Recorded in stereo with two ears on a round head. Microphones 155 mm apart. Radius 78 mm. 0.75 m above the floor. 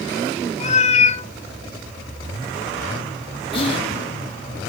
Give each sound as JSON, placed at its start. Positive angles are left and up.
{"t": 0.6, "sound": "a cat meowing", "side_deg": 40, "distance_m": 0.8}
{"t": 3.5, "sound": "whispering", "side_deg": 30, "distance_m": 1.3}